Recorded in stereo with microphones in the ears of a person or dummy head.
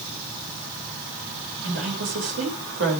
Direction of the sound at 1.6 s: 70° right (ahead or behind).